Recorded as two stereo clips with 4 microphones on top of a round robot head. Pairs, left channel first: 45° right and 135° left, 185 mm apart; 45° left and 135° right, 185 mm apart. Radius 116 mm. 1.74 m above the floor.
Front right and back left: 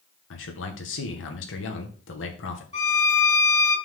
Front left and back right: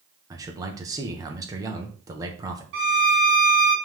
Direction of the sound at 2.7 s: 105° right.